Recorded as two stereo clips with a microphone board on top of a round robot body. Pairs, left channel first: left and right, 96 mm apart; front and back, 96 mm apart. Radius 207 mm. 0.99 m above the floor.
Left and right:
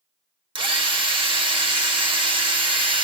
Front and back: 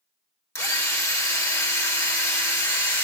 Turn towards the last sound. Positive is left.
turn(degrees=-60)